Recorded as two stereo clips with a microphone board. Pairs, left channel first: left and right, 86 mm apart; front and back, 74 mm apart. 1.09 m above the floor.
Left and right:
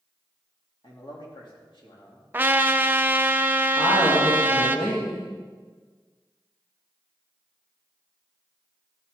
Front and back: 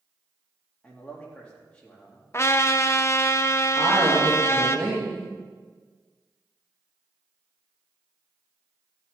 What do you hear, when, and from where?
0.8 s a man speaking: 75° left, 2.5 m
2.3 s a trumpet: 30° right, 0.5 m
3.8 s a woman speaking: 70° left, 2.0 m